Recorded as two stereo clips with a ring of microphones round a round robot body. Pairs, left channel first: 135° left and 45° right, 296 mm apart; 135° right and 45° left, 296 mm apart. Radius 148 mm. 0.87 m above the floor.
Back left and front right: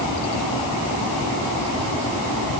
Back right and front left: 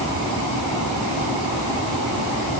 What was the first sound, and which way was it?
Only background noise.